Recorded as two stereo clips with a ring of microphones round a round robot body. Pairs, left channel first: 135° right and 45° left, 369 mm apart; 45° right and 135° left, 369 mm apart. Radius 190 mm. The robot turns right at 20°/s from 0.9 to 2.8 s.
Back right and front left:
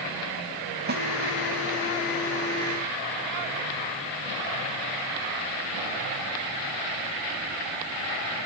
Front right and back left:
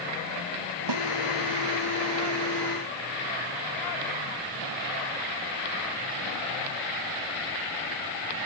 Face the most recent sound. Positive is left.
turn(degrees=145)